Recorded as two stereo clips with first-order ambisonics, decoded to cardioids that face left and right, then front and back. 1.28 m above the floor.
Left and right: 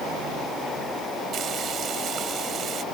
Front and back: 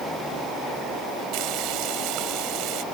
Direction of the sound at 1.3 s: 150° right.